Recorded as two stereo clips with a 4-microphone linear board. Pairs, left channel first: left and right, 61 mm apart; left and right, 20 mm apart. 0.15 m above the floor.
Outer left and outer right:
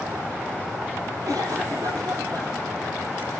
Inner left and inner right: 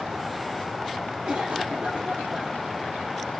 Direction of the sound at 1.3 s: 55° right (ahead or behind).